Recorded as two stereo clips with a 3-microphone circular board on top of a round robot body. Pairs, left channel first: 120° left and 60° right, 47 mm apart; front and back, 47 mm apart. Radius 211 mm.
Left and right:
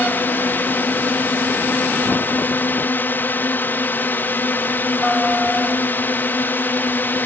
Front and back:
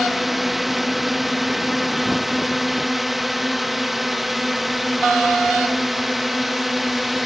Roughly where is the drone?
Left.